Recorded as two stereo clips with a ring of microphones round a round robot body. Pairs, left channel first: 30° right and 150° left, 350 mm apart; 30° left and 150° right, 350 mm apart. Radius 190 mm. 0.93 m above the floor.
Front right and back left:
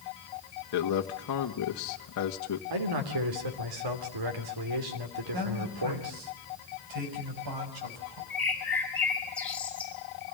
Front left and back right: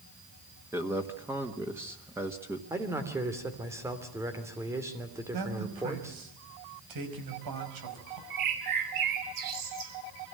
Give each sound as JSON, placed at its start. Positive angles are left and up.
{"t": 0.7, "sound": "a man speaking", "azimuth_deg": -65, "distance_m": 1.5}
{"t": 2.7, "sound": "a man speaking", "azimuth_deg": 130, "distance_m": 3.0}
{"t": 5.3, "sound": "a man speaking", "azimuth_deg": 180, "distance_m": 5.5}
{"t": 8.3, "sound": "a bird", "azimuth_deg": -115, "distance_m": 5.0}